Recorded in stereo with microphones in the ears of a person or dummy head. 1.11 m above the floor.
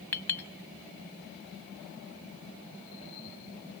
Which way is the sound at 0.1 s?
5° left (ahead or behind).